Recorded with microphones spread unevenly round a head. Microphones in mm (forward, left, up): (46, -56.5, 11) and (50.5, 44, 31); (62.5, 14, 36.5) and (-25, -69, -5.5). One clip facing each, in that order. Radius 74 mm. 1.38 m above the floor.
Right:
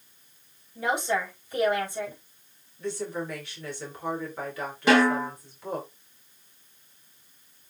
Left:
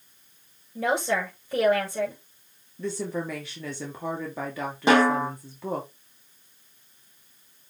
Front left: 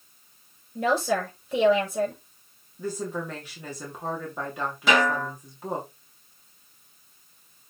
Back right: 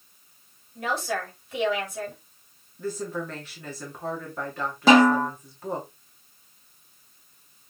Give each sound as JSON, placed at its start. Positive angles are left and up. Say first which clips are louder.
{"t": 0.8, "sound": "a woman speaking", "louder": "left 2 dB, front left 5 dB", "azimuth_deg": 70, "distance_m": 5.5}
{"t": 2.8, "sound": "a woman speaking", "louder": "left 2 dB, even", "azimuth_deg": 125, "distance_m": 2.5}
{"t": 4.9, "sound": "a snare drum", "louder": "left 1 dB, back right 7 dB", "azimuth_deg": 165, "distance_m": 3.0}